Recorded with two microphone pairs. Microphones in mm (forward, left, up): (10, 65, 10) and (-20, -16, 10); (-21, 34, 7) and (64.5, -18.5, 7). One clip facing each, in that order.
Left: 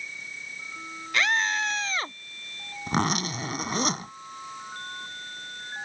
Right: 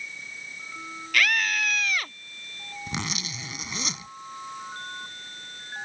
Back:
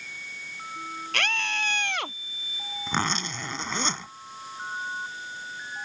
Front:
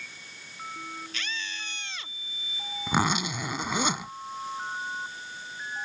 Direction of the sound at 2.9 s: 45° left.